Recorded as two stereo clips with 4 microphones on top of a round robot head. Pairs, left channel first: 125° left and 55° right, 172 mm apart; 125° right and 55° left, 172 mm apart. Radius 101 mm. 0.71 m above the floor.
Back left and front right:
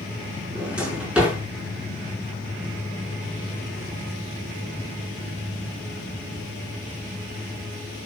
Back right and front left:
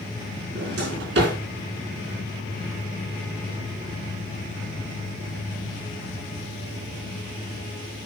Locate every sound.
0.6 s a drawer: 30° left, 5 m